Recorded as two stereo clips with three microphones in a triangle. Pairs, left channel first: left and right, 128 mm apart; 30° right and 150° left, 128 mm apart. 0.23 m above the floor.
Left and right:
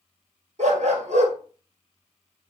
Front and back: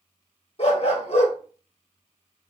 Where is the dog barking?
65° right, 1.2 m.